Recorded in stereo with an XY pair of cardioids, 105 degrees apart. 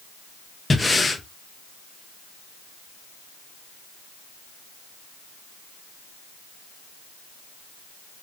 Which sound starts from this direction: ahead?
Breathing, at 0.7 s.